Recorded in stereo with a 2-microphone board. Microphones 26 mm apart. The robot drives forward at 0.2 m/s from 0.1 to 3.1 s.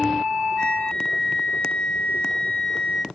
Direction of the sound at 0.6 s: 45° left (ahead or behind).